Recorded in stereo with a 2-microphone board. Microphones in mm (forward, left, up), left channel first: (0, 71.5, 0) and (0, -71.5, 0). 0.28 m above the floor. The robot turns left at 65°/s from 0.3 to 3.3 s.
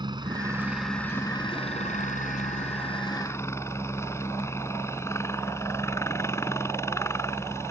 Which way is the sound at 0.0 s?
145° right.